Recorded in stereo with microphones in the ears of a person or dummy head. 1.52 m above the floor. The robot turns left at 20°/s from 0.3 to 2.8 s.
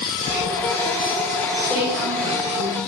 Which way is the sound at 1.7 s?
Centre (ahead or behind).